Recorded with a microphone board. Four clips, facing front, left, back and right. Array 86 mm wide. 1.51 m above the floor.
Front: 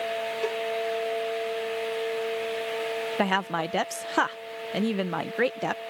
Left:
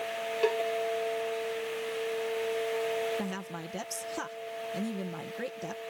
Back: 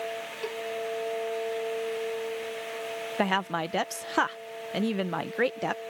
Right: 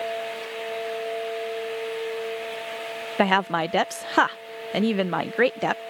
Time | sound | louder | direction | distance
0.4 | a cowbell | left 8 dB, front 5 dB | 70° left | ?
3.2 | a woman speaking | right 16 dB, even | 85° right | ?